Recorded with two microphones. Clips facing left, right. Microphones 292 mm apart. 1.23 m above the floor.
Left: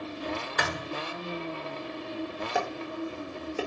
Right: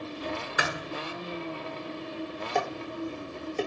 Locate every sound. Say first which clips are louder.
0.6 s a thud: even; 10° right (ahead or behind), 1.0 m
2.5 s dishes clattering: right 1 dB; 5° left (ahead or behind), 1.5 m